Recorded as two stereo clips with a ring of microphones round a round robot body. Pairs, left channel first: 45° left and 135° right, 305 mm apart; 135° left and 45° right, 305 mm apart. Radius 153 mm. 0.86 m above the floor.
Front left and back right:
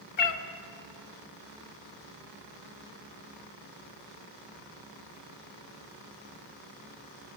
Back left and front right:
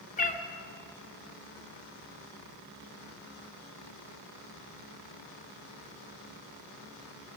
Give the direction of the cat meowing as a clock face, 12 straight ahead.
10 o'clock.